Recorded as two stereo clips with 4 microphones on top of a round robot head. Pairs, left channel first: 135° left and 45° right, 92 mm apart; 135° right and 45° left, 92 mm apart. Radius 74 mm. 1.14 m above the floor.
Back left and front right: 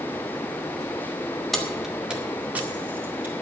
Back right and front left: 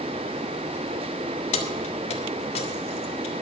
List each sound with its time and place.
1.5 s keys jangling: 140° right, 1.3 m; by 3.4 s 115° right, 2.5 m